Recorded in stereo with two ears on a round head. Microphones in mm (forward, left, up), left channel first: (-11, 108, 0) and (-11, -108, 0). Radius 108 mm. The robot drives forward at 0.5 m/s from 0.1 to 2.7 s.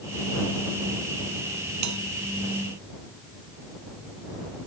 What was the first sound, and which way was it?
A bell, 90° right.